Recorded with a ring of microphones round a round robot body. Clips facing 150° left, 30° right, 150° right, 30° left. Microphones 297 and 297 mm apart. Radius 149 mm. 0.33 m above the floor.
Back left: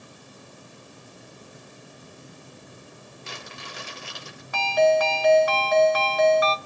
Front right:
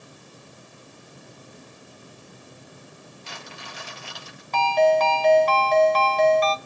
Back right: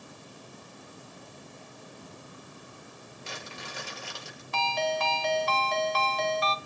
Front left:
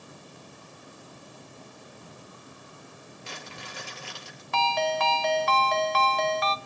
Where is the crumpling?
165° right, 8.5 m.